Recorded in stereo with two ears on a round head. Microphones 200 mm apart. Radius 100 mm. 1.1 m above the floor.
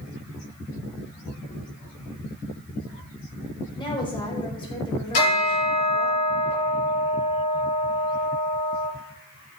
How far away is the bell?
About 6.5 m.